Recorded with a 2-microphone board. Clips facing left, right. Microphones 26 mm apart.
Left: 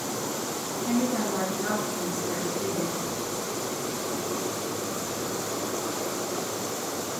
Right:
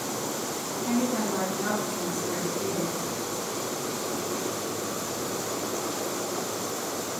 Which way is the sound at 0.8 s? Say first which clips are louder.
Even; 40° right (ahead or behind).